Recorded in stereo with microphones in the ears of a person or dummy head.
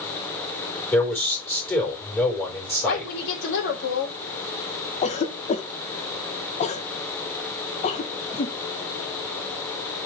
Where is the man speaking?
10° left (ahead or behind), 4 m.